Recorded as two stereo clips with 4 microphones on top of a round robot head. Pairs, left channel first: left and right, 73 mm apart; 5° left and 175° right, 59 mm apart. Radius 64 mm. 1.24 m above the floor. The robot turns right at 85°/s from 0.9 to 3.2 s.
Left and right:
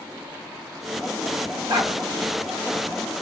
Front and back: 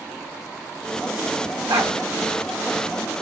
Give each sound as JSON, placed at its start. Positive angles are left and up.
{"t": 1.7, "sound": "a dog barking", "azimuth_deg": -140, "distance_m": 1.5}